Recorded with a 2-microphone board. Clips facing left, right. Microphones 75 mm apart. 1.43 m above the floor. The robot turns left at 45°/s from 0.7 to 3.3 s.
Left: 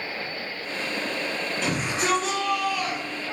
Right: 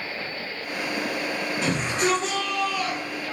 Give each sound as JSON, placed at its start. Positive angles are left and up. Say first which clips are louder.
{"t": 1.6, "sound": "a shout", "louder": "right 2 dB", "azimuth_deg": -115, "distance_m": 1.8}